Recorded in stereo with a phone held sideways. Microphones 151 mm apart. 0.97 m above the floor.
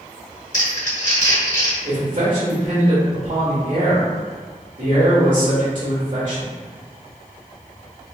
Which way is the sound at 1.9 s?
60° right (ahead or behind).